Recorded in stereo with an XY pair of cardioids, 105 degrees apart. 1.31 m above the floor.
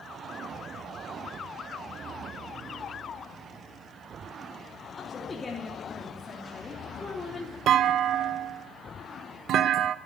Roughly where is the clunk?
Ahead right.